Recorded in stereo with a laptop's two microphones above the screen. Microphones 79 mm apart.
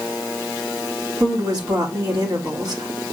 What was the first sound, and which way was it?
A woman speaking, 50° right (ahead or behind).